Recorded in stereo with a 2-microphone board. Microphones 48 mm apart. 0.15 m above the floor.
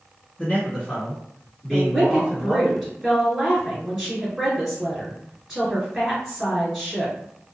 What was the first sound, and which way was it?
A man speaking, 35° left (ahead or behind).